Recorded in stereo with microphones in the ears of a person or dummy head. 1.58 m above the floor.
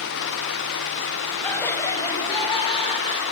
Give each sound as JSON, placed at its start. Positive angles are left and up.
{"t": 1.4, "sound": "laughter", "side_deg": 5, "distance_m": 0.9}